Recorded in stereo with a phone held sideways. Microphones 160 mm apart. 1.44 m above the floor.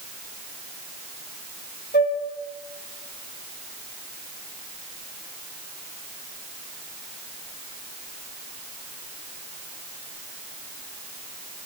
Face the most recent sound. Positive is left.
turn(degrees=80)